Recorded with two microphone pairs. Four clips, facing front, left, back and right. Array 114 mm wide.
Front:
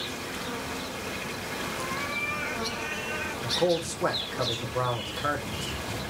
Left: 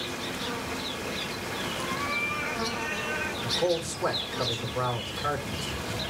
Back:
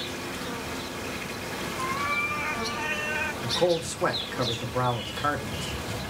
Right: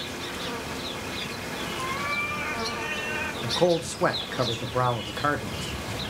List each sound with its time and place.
1.8 s a cat meowing: 150° right, 2.5 m; by 3.3 s 160° right, 1.3 m
3.4 s a man speaking: 100° right, 1.7 m